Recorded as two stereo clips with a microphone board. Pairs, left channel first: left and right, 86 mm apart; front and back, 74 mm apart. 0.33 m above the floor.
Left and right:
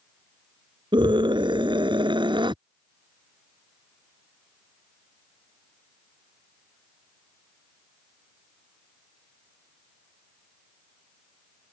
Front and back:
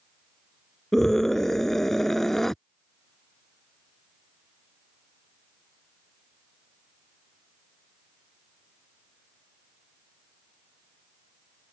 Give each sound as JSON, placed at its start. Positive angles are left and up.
{"t": 0.9, "sound": "a scream", "azimuth_deg": -85}